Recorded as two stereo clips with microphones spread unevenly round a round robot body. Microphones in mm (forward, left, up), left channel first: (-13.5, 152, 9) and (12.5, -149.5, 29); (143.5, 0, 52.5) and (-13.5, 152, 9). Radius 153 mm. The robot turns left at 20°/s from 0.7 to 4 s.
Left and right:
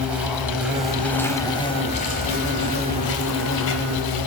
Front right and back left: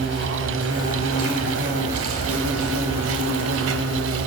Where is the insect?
170° right, 1.1 m; by 4.3 s 125° left, 1.1 m.